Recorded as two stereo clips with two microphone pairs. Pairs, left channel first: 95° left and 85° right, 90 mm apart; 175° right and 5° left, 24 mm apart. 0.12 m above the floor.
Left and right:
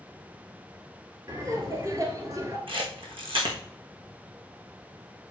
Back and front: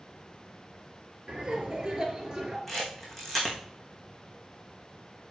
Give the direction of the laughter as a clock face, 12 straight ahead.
1 o'clock.